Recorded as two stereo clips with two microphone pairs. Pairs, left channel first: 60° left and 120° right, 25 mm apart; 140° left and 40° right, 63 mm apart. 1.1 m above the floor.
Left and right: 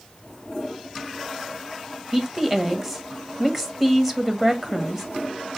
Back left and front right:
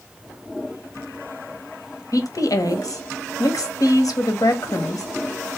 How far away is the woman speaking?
About 1.1 m.